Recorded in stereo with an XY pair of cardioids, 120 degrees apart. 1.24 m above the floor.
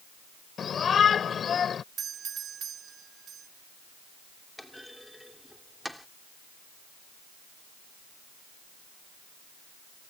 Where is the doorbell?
45° right.